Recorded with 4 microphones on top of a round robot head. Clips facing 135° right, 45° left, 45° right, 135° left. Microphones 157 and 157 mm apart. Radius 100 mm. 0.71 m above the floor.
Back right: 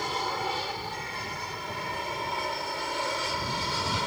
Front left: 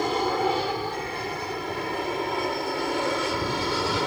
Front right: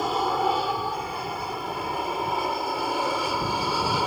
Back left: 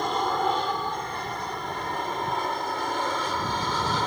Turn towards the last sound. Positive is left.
turn(degrees=35)